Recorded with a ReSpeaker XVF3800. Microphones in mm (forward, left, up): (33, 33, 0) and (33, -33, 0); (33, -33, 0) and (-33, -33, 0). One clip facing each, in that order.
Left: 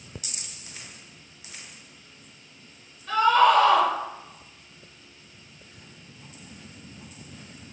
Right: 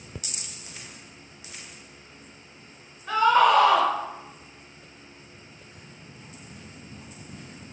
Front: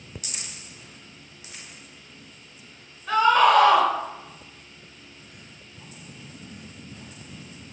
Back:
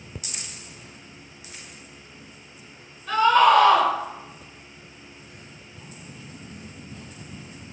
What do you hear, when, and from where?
3.1 s a scream: 75° right, 1.2 m